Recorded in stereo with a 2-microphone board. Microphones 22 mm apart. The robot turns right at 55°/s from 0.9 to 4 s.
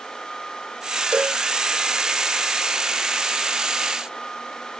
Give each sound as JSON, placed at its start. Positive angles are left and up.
{"t": 1.1, "sound": "a cowbell", "side_deg": -50}